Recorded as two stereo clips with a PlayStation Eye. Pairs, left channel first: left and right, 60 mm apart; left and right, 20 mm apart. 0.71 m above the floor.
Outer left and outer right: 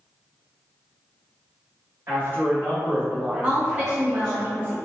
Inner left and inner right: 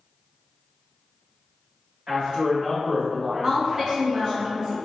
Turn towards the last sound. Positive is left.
turn(degrees=-25)  # may be behind; listen again after turning